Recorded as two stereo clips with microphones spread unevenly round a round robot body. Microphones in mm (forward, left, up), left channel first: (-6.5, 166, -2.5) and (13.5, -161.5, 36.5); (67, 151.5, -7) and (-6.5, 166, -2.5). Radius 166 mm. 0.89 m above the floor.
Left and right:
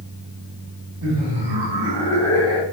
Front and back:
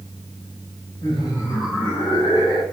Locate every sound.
1.0 s laughter: 65° right, 4 m; by 2.6 s 75° right, 5 m